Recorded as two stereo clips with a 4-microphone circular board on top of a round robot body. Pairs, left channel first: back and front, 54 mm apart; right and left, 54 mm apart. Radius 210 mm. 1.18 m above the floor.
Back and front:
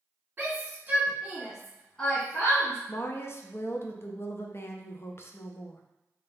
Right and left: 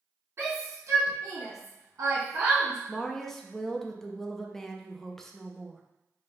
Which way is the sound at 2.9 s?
170° right.